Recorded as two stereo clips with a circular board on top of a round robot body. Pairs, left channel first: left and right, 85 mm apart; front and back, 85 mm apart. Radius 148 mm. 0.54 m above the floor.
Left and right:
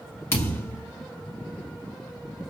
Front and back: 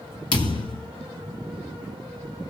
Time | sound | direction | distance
0.3 | a thud | 30° left | 1.0 m